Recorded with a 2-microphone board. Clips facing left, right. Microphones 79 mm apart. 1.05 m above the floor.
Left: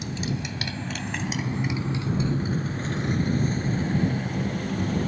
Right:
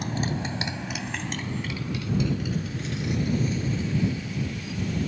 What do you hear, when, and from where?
0.0 s a motorcycle: 50° right (ahead or behind); by 5.1 s 50° left (ahead or behind)